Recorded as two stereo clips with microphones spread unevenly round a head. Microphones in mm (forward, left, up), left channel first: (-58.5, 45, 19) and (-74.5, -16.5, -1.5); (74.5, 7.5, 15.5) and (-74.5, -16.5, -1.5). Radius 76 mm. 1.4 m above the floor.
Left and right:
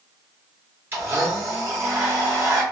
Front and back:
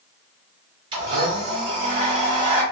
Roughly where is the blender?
Behind.